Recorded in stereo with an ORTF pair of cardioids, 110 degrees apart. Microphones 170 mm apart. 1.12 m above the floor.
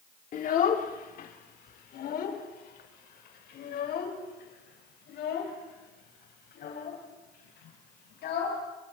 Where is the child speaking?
50° left, 2 m; by 8.6 s 65° left, 7 m.